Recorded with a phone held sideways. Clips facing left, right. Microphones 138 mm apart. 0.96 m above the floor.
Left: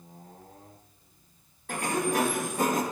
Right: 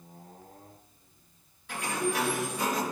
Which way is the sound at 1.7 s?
50° left (ahead or behind).